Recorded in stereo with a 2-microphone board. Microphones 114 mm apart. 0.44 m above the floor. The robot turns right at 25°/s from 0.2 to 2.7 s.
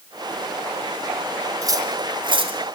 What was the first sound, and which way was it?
Cutlery clinking, 30° right (ahead or behind).